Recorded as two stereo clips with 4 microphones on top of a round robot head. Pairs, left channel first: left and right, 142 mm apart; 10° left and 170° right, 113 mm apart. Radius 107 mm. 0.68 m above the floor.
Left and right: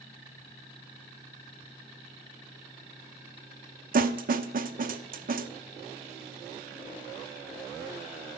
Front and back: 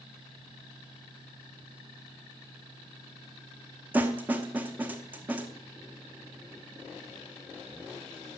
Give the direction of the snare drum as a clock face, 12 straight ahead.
3 o'clock.